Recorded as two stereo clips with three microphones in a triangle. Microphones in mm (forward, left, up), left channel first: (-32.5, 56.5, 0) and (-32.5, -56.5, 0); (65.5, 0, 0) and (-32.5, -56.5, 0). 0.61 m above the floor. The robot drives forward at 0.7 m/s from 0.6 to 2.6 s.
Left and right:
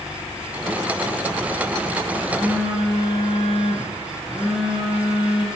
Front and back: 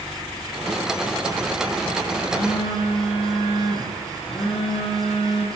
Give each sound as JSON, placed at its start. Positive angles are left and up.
{"t": 2.2, "sound": "a phone buzzing", "azimuth_deg": -5, "distance_m": 10.0}